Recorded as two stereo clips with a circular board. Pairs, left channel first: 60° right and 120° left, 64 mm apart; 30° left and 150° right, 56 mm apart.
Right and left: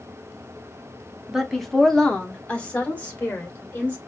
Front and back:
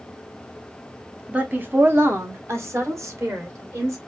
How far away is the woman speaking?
About 0.7 m.